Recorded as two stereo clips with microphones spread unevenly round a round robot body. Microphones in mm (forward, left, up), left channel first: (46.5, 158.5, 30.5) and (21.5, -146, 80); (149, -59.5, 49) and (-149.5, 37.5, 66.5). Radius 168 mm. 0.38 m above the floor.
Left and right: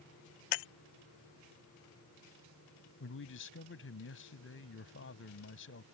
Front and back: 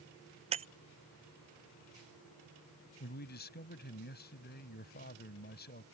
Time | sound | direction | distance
0.5 | breaking glass | 90° left | ?
3.0 | a man speaking | 40° left | ?